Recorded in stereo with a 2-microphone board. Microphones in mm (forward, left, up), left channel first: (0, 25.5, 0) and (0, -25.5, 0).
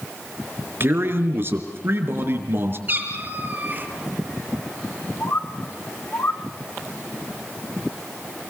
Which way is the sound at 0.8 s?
45° right (ahead or behind).